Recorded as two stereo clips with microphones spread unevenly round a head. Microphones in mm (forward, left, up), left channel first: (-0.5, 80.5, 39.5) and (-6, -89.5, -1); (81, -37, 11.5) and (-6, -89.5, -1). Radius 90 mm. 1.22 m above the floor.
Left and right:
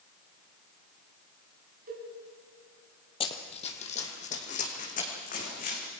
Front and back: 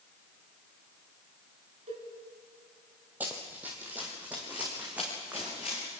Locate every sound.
1.9 s a cowbell: 140° right, 3 m
3.2 s running footsteps: 130° left, 2.0 m; by 5.9 s 125° left, 5.5 m